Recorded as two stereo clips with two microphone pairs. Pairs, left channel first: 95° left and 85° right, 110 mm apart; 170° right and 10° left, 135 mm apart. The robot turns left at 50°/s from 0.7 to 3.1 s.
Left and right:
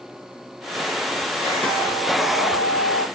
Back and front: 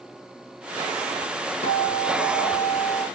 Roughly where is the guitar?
Behind.